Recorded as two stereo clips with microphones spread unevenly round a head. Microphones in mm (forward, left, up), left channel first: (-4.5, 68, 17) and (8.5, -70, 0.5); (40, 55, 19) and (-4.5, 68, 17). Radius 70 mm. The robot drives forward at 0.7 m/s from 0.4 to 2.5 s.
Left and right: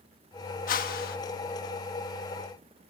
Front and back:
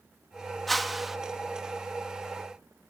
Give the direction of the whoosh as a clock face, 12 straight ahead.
10 o'clock.